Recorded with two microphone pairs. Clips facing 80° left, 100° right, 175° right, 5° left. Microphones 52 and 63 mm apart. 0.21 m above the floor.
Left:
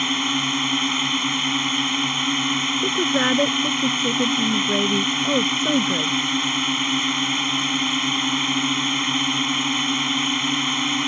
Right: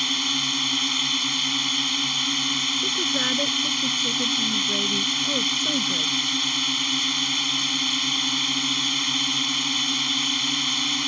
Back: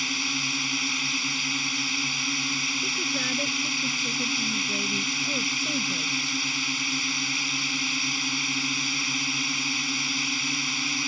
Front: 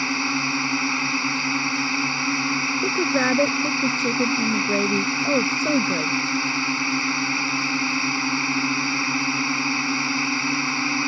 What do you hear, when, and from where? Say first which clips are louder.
0.0 s a drone: left 4 dB, front 7 dB; 30° left
2.8 s a woman speaking: left 8 dB, front 9 dB; 30° left